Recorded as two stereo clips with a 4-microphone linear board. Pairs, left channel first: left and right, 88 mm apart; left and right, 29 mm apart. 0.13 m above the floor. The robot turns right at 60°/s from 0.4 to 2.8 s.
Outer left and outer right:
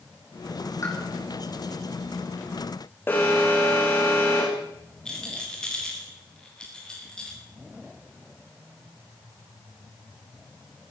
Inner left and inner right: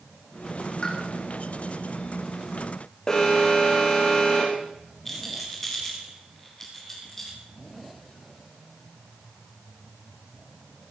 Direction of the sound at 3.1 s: 25° left (ahead or behind).